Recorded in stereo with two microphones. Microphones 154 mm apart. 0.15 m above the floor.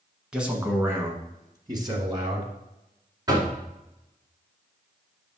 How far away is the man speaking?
About 1.2 m.